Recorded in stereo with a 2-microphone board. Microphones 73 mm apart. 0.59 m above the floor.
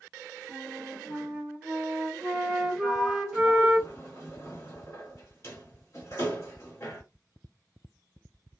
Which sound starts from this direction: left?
A sliding door, at 2.8 s.